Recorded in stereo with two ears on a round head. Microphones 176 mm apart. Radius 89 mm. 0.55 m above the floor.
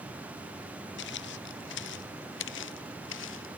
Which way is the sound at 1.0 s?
70° left (ahead or behind).